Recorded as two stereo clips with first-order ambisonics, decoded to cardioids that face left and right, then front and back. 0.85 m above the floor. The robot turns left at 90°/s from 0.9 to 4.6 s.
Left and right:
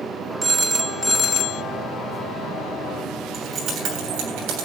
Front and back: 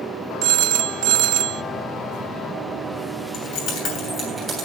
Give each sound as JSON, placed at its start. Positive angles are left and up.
{"t": 0.4, "sound": "a phone ringing", "azimuth_deg": -165, "distance_m": 0.5}
{"t": 3.3, "sound": "keys jangling", "azimuth_deg": 0, "distance_m": 7.5}